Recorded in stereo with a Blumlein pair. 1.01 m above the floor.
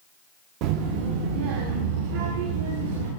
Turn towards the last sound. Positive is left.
turn(degrees=-55)